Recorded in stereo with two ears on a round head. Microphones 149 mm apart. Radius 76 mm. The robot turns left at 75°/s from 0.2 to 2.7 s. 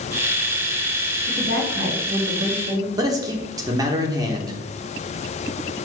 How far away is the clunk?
I don't hear a clunk.